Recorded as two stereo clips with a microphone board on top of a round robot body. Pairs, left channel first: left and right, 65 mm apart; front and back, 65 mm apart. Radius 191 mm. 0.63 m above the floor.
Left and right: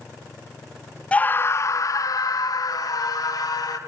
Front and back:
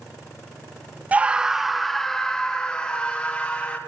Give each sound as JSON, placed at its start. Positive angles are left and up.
{"t": 1.1, "sound": "a scream", "azimuth_deg": 140, "distance_m": 0.6}